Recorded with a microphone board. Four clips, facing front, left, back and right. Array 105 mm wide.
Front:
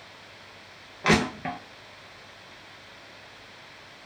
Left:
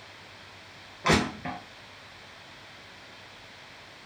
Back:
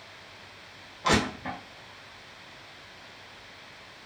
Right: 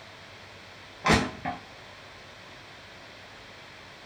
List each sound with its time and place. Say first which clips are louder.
1.0 s crushing: right 1 dB, front 2 dB; 10° right, 0.7 m